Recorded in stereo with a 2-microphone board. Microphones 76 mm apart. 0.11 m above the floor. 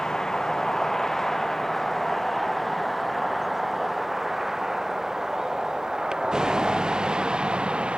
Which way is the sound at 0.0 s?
5° left (ahead or behind).